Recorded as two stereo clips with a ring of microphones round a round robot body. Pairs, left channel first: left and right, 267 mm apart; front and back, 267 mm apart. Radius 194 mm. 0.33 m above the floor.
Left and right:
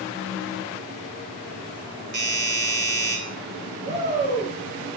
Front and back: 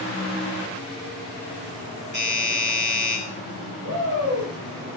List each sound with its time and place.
2.1 s a doorbell: 70° right, 9 m
3.8 s a shout: 115° right, 6 m